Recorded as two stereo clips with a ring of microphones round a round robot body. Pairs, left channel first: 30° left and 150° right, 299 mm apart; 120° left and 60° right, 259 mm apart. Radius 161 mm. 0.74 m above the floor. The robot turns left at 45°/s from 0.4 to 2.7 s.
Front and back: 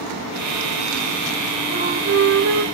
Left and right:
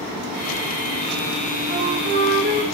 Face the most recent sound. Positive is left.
turn(degrees=-125)